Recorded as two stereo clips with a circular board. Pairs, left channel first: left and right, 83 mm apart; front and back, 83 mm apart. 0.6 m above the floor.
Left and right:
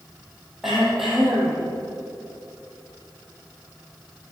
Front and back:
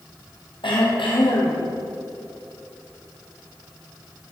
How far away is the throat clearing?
About 4 m.